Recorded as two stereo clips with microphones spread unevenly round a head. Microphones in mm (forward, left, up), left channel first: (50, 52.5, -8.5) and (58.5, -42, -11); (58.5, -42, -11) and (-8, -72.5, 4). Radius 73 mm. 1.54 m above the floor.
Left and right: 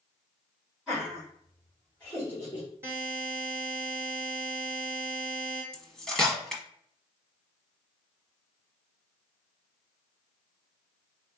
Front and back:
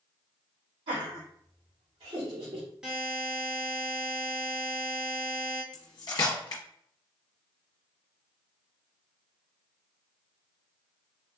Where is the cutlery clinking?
15° left, 1.0 m.